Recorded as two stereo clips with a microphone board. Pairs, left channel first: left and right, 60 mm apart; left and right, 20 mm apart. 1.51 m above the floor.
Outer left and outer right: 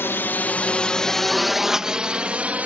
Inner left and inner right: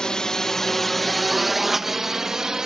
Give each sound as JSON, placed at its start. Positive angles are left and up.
{"t": 0.0, "sound": "a drone", "side_deg": 40}